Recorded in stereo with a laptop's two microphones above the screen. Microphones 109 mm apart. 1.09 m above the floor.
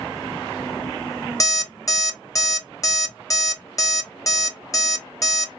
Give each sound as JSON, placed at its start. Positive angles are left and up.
{"t": 1.4, "sound": "an alarm clock", "side_deg": 30, "distance_m": 1.0}